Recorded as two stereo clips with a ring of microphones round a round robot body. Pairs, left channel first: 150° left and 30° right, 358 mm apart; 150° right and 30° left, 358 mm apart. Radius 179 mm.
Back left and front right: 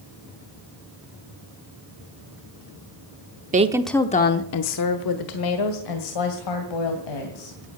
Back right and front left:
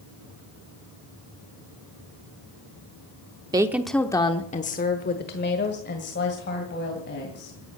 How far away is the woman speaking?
About 0.7 m.